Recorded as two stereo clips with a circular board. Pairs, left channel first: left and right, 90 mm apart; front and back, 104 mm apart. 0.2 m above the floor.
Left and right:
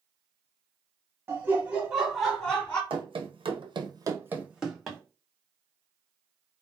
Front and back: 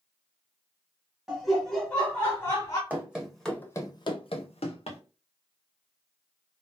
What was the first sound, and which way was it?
Laughter, 100° right.